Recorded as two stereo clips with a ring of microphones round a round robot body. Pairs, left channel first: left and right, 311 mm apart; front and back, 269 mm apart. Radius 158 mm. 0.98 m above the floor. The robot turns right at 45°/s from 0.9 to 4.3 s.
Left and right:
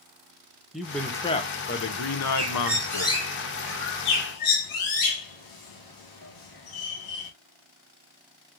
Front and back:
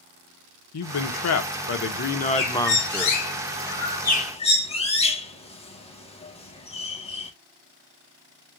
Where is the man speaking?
Straight ahead, 1.0 m; by 3.2 s 100° left, 1.0 m.